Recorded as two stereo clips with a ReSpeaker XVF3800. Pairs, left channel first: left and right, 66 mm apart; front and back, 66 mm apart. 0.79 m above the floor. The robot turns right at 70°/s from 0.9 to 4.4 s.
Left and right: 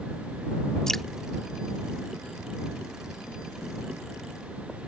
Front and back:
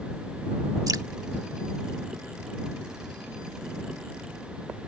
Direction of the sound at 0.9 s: 170° left.